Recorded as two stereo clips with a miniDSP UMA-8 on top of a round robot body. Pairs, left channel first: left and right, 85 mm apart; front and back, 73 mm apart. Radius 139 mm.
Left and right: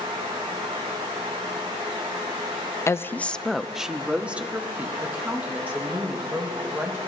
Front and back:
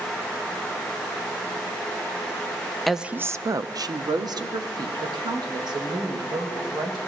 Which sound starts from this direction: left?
A woman speaking, at 2.9 s.